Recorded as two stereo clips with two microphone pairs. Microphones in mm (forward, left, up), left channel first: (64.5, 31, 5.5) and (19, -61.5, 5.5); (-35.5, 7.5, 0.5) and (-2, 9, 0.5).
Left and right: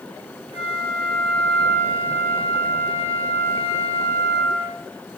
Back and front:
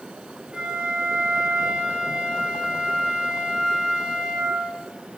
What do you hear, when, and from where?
0.5 s a flute: 65° left, 3.5 m